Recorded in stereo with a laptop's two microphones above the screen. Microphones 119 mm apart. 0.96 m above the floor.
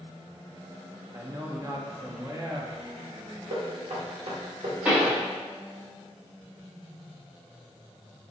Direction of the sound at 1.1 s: 25° right (ahead or behind).